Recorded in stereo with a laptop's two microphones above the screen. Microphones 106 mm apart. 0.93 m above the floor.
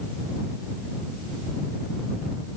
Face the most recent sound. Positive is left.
No sound to turn to.